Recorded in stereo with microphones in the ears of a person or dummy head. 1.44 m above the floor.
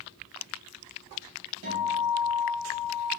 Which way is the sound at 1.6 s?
70° right (ahead or behind).